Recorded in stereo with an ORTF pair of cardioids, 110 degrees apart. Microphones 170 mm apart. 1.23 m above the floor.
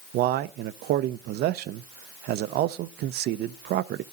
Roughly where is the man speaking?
Right.